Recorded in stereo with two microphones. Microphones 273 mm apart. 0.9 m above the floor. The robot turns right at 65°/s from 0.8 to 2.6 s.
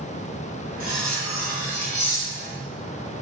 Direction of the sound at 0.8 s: 80° left.